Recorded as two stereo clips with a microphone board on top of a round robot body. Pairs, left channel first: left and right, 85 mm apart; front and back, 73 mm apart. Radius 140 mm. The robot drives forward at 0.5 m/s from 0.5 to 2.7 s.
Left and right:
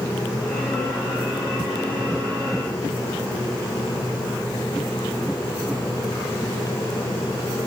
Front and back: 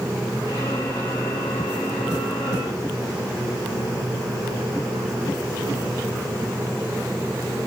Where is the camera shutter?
No camera shutter in this recording.